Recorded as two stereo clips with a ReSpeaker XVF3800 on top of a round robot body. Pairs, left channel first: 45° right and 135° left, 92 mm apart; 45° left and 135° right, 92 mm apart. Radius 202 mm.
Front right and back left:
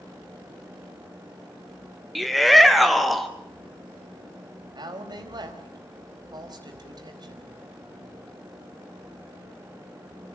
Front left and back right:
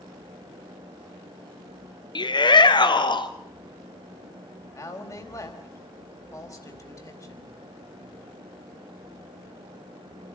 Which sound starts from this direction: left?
A woman speaking, at 4.7 s.